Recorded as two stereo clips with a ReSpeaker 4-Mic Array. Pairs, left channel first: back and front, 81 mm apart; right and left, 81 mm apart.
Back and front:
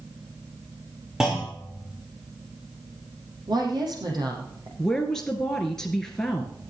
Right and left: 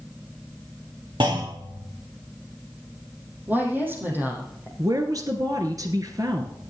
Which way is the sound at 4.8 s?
100° left.